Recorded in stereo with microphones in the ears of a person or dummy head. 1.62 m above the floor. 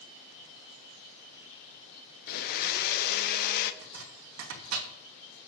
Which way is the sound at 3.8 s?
85° right.